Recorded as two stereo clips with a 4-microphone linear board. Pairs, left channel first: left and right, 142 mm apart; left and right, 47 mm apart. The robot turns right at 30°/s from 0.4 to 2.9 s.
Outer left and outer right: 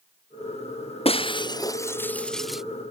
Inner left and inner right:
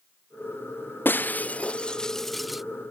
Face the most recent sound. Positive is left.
turn(degrees=-165)